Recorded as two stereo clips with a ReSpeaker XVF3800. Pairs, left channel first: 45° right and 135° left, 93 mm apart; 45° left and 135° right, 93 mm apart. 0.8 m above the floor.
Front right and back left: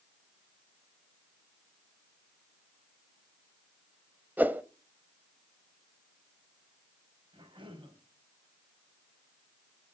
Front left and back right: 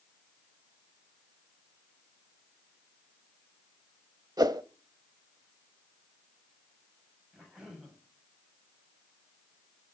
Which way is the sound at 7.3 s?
145° left.